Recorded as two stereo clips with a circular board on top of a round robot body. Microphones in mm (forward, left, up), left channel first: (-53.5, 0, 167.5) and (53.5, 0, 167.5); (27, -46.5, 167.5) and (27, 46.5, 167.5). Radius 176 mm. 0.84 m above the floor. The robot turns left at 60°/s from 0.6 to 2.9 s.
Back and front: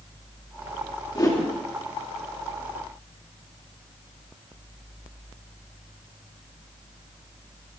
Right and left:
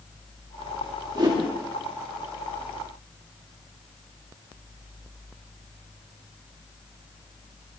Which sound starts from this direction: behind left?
A whoosh, at 1.1 s.